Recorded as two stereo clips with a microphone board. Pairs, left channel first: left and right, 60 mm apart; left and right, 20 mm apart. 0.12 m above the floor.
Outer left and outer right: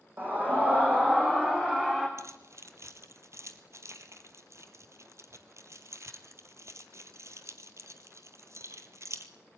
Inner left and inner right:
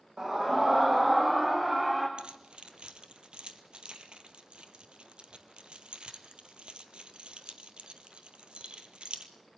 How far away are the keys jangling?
About 1.9 m.